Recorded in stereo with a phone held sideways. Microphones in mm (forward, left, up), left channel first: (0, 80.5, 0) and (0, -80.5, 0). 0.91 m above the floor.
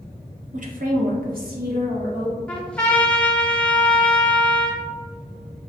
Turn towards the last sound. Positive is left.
turn(degrees=5)  # may be behind; listen again after turning